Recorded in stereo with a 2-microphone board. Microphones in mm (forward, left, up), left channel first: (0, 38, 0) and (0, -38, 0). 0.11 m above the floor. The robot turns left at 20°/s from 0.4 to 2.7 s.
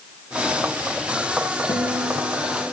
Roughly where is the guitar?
Left.